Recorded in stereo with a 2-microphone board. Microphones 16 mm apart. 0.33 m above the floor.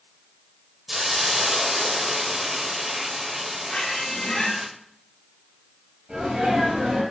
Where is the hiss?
15° right (ahead or behind), 0.7 m.